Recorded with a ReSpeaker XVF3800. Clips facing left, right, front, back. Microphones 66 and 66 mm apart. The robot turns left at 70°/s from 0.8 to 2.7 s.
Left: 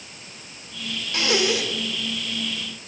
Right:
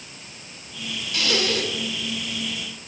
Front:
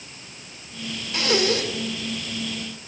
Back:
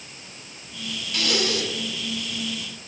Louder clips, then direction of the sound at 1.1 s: Left 2 dB, front 4 dB; 50° left.